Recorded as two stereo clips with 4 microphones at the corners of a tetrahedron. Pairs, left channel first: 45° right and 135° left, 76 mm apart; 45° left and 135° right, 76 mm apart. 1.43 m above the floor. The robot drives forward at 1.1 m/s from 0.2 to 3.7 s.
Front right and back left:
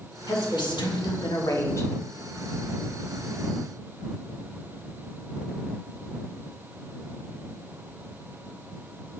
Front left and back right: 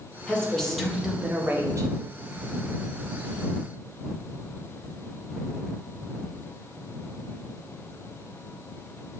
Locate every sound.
0.3 s a woman speaking: 30° right, 1.9 m; by 1.9 s 100° right, 1.0 m